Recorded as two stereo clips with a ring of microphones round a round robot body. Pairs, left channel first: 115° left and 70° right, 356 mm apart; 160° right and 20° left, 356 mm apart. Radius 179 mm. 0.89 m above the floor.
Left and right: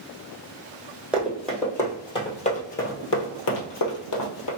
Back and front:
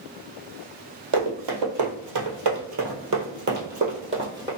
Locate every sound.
1.1 s running footsteps: 20° left, 1.7 m; by 4.5 s 100° left, 1.5 m